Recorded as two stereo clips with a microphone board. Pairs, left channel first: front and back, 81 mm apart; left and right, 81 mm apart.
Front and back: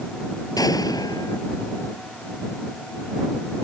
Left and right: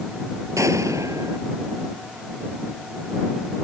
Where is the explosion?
40° right.